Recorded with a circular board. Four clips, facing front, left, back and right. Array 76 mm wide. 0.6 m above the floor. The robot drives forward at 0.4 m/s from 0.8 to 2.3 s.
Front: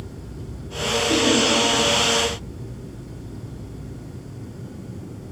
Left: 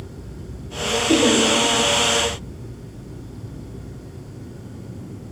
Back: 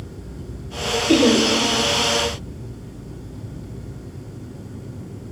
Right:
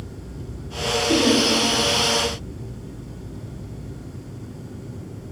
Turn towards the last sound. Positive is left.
turn(degrees=165)